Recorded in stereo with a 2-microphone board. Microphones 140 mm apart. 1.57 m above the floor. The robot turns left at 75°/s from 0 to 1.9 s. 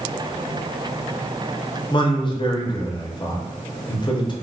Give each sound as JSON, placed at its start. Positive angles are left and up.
{"t": 1.9, "sound": "a man speaking", "side_deg": 35, "distance_m": 0.6}